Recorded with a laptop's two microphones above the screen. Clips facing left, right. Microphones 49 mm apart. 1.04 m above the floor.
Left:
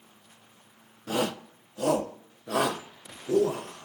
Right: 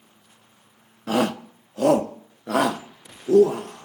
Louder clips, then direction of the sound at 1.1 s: Right 6 dB; 70° right (ahead or behind).